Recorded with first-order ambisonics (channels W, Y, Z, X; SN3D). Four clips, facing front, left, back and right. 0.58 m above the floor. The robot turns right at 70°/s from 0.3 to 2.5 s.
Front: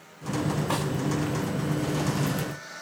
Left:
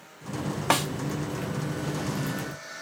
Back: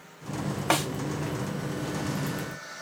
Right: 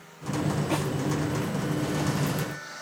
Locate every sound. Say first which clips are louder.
0.7 s a snare drum: left 8 dB, back 8 dB; 125° left, 1.0 m; by 0.9 s 140° left, 1.0 m